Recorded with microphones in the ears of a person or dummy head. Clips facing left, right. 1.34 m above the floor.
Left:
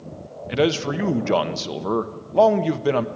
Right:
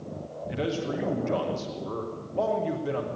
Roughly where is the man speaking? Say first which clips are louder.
Left 9 dB; left.